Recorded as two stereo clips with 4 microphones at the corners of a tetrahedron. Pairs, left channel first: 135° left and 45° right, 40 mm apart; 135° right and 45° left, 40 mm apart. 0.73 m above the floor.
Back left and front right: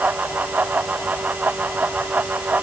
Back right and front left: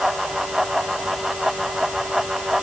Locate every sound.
Only background noise.